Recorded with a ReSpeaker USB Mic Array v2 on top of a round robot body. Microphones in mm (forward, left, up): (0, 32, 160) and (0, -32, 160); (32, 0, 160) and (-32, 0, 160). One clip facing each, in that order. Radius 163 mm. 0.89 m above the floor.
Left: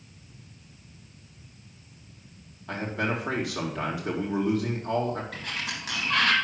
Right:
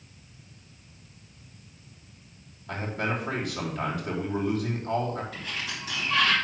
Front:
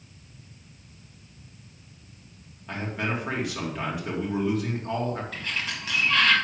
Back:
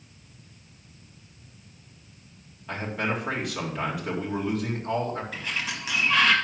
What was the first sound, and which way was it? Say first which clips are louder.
A man speaking: left 1 dB, back 1 dB; 90° left.